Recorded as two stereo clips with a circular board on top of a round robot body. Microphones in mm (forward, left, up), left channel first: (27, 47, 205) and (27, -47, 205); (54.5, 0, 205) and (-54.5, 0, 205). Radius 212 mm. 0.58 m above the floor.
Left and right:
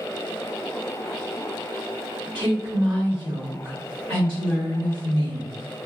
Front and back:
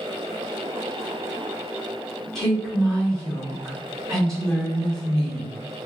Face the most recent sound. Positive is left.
turn(degrees=-85)